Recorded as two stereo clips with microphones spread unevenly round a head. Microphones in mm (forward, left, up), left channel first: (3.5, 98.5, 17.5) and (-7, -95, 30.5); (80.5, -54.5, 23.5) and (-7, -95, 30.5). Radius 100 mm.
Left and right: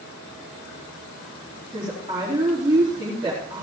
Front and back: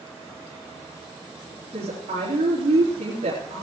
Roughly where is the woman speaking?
Behind.